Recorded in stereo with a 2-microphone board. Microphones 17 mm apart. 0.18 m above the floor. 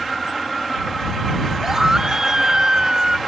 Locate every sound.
1.6 s a scream: 30° right (ahead or behind); by 3.2 s 45° right (ahead or behind)